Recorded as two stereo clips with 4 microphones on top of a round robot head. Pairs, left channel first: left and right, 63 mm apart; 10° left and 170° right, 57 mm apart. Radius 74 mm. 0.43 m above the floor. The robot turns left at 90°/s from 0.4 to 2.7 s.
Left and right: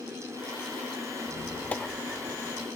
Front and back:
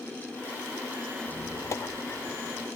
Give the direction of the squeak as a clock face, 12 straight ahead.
10 o'clock.